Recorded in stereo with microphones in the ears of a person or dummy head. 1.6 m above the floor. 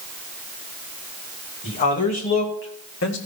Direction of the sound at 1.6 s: 35° left (ahead or behind).